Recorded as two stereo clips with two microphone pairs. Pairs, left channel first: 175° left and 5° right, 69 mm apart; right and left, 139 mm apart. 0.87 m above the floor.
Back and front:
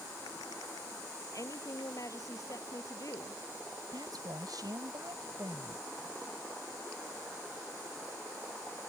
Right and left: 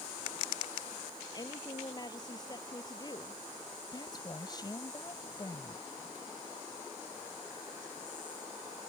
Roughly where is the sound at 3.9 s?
Ahead right.